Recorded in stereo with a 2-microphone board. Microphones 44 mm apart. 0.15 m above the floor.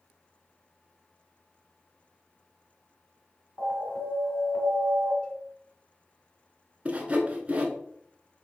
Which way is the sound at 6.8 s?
30° right (ahead or behind).